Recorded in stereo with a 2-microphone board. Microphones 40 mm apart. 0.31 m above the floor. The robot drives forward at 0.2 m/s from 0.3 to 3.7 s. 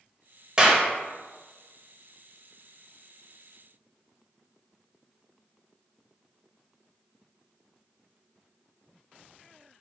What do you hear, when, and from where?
0.6 s a clap: 20° right (ahead or behind), 0.7 m